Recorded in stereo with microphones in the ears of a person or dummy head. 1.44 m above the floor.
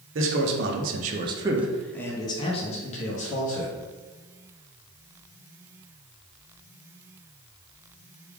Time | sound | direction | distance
0.1 | a man speaking | 65° right (ahead or behind) | 0.8 m